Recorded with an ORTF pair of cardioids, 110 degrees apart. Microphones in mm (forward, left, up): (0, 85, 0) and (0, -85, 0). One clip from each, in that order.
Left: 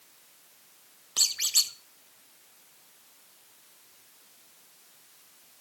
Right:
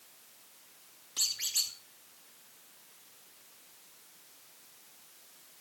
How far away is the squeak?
About 1.5 m.